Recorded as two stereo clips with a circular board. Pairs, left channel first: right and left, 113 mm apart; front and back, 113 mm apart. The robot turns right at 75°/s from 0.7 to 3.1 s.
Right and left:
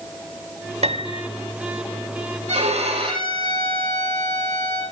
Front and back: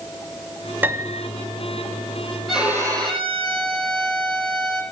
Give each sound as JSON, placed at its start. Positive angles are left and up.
{"t": 0.8, "sound": "a piano", "azimuth_deg": 105, "distance_m": 1.2}
{"t": 2.5, "sound": "a violin", "azimuth_deg": 90, "distance_m": 8.5}